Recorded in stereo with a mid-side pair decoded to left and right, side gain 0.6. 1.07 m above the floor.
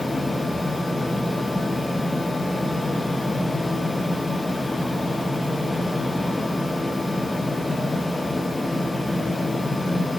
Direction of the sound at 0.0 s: 10° left.